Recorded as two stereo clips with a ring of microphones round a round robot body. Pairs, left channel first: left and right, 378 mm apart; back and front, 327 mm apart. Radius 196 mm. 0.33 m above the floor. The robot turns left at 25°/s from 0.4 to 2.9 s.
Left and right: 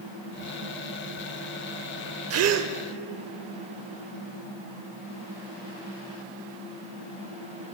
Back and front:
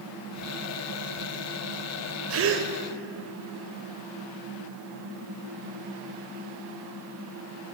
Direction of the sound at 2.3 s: 40° right.